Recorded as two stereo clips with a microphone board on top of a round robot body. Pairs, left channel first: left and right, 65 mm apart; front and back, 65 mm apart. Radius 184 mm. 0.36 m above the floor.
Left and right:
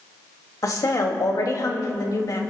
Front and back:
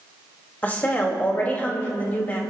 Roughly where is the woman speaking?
Ahead left.